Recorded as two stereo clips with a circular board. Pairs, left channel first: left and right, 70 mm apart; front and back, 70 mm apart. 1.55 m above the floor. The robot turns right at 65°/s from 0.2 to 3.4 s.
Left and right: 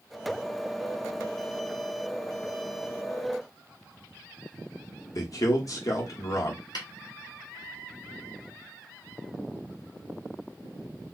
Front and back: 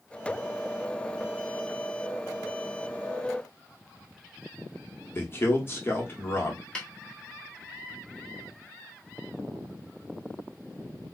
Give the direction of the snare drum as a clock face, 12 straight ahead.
9 o'clock.